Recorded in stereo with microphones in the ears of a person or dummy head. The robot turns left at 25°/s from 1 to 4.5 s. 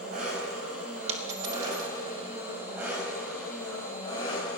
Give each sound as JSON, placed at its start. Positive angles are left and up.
{"t": 0.0, "sound": "an engine running", "azimuth_deg": -125, "distance_m": 3.5}
{"t": 1.1, "sound": "a dropped coin", "side_deg": -40, "distance_m": 2.0}